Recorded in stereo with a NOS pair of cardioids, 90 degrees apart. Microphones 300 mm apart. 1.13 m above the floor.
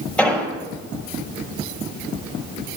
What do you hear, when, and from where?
0.2 s an explosion: 5° left, 5 m